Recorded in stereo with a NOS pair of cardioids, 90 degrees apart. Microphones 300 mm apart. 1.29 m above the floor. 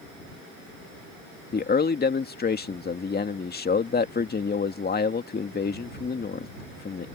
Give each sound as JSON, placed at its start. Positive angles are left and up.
{"t": 1.5, "sound": "a man speaking", "azimuth_deg": 30}